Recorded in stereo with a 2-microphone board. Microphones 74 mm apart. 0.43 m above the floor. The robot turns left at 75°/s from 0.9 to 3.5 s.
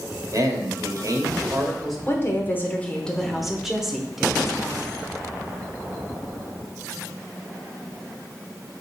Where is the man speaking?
100° right, 1.6 m; by 2.0 s straight behind, 1.6 m.